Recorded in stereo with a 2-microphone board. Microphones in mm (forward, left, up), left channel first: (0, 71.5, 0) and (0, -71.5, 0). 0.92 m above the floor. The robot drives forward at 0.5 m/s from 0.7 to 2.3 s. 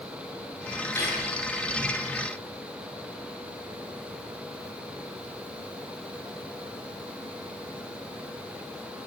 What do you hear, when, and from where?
0.9 s cutlery clinking: 20° left (ahead or behind), 9 m